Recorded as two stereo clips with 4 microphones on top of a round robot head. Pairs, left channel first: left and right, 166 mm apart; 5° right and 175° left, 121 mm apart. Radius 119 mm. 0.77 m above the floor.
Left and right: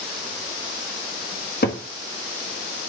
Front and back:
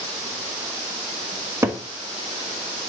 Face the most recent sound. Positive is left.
turn(degrees=105)